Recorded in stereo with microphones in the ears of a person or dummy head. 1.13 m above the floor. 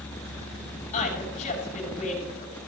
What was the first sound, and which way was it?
A woman speaking, 40° left (ahead or behind).